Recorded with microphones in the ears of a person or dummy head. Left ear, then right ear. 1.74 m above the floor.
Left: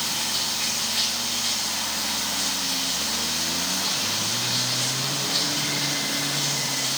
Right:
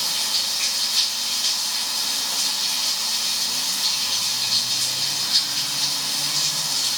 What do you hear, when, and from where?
0.0 s running water: 40° right (ahead or behind), 5.5 m